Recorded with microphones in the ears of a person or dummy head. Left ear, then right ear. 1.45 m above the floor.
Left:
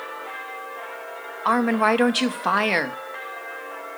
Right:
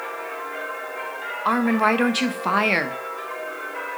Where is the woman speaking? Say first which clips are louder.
Left 1 dB; 20° left (ahead or behind), 0.6 m.